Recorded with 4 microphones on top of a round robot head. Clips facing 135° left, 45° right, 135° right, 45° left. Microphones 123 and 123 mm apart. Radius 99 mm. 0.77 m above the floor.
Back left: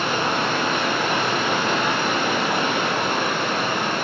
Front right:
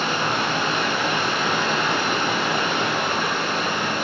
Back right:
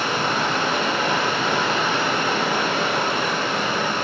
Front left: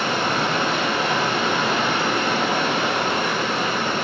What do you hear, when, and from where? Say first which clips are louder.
0.0 s running water: back left 1 dB, front left 1 dB; 90° left, 1.6 m